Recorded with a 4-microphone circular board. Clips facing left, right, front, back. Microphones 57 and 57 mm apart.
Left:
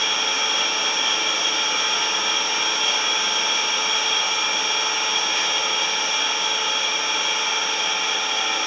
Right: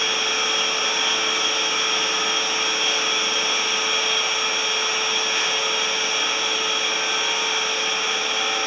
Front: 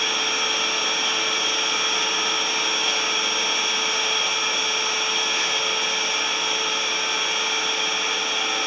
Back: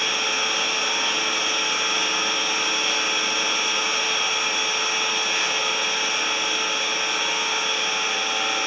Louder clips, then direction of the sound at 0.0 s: Even, even; 145° right.